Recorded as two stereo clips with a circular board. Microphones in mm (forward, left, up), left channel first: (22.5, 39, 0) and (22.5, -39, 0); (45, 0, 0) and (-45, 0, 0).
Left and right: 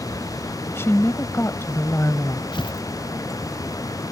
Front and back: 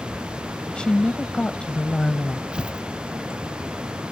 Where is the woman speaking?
70° left.